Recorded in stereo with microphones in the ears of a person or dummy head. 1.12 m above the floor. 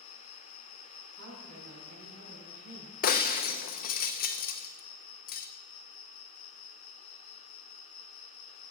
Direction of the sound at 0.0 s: 50° left (ahead or behind).